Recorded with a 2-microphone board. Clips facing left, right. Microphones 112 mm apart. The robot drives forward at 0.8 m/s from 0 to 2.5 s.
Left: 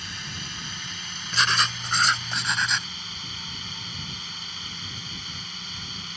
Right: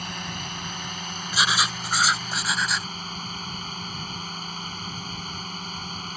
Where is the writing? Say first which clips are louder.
Even; 10° right (ahead or behind); by 2.9 s 5° right (ahead or behind).